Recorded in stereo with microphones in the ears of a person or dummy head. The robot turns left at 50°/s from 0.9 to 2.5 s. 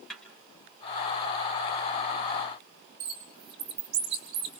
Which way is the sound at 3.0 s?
30° right (ahead or behind).